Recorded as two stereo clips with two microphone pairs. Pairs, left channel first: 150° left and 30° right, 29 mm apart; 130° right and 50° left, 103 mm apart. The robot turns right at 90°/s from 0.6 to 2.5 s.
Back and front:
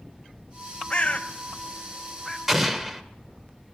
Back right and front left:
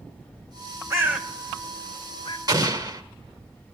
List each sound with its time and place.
0.9 s a bird: 100° left, 0.9 m; by 2.4 s 125° right, 0.9 m
2.5 s an explosion: 40° left, 1.0 m